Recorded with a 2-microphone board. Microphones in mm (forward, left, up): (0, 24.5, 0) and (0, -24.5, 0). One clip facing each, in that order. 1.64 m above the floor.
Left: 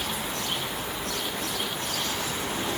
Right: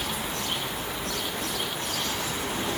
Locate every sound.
Only background noise.